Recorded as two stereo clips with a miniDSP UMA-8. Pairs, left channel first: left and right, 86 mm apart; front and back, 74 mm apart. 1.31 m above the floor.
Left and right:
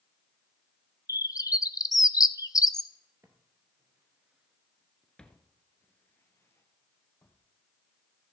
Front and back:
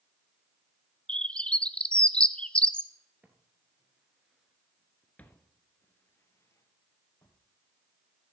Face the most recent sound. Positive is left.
turn(degrees=40)